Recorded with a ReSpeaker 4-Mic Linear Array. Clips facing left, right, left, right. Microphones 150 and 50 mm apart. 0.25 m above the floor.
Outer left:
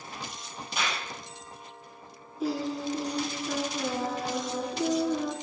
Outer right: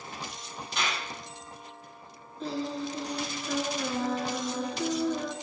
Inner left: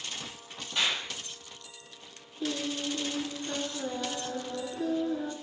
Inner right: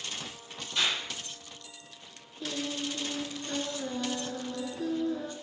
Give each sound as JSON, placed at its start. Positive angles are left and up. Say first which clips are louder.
{"t": 0.8, "sound": "a clap", "louder": "even, even", "side_deg": 10, "distance_m": 4.5}
{"t": 2.4, "sound": "singing", "louder": "outer left 3 dB, inner left 2 dB", "side_deg": 10, "distance_m": 1.2}